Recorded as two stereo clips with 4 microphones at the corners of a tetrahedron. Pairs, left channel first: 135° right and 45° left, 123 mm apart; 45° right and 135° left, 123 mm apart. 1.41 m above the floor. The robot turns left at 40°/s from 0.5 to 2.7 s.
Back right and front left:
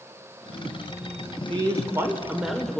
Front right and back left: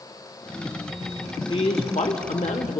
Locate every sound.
1.5 s a man speaking: 5° right, 1.0 m; by 2.8 s 50° right, 1.0 m